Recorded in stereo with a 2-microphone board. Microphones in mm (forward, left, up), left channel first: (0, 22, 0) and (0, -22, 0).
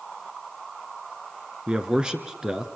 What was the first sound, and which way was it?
A man speaking, 20° right (ahead or behind).